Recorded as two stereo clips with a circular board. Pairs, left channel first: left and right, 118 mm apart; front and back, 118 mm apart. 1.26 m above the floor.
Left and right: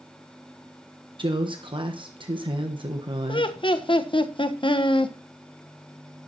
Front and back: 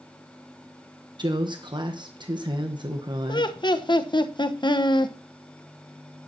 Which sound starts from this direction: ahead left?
Laughter, at 3.3 s.